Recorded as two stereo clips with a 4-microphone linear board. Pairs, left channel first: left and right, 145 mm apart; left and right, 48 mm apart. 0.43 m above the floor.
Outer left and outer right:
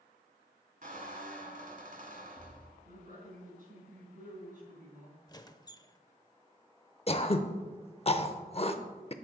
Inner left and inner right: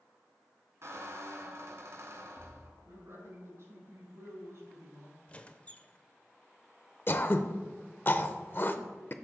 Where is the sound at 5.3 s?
25° left (ahead or behind), 0.5 m.